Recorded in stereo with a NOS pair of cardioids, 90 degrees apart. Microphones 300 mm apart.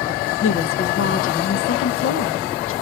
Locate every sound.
0.4 s a woman speaking: 45° left, 0.7 m